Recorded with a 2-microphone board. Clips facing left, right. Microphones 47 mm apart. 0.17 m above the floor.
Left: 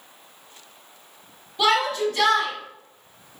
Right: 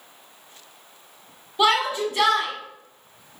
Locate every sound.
1.6 s a shout: 20° right (ahead or behind), 1.1 m